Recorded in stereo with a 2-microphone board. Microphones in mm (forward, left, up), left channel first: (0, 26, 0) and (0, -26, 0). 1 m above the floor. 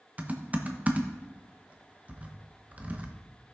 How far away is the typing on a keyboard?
About 1.1 m.